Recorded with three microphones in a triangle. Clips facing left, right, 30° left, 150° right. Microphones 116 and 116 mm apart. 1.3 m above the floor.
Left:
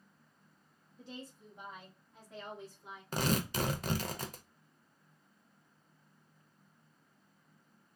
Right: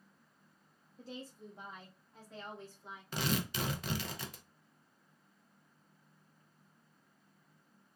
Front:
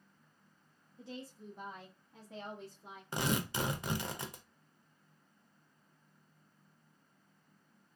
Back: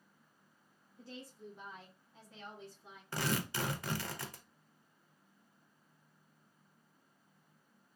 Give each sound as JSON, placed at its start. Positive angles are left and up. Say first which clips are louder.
{"t": 1.0, "sound": "a woman speaking", "louder": "right 1 dB, front 3 dB", "azimuth_deg": -45, "distance_m": 0.9}
{"t": 3.1, "sound": "tearing paper", "louder": "left 3 dB, front 2 dB", "azimuth_deg": 90, "distance_m": 0.5}